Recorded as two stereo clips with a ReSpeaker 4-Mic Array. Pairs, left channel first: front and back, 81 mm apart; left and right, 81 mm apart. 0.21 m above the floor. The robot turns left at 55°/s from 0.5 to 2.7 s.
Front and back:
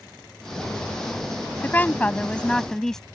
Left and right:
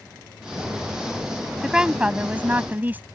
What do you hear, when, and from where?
1.6 s a woman speaking: 15° right; by 3.0 s 75° right